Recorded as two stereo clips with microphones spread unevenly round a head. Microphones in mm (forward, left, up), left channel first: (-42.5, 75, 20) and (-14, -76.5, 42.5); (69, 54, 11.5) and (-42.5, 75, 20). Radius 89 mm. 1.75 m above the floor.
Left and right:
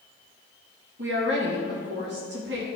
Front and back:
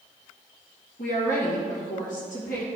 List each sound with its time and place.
1.0 s a woman speaking: 50° right, 2 m